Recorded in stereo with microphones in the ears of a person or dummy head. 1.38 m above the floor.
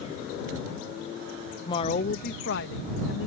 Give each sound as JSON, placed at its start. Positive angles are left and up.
{"t": 1.6, "sound": "a woman speaking", "side_deg": 25}